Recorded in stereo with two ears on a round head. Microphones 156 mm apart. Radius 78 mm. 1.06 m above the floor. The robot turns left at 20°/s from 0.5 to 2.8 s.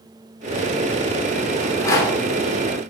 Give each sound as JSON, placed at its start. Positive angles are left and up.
{"t": 1.6, "sound": "a rattle", "side_deg": 15, "distance_m": 2.5}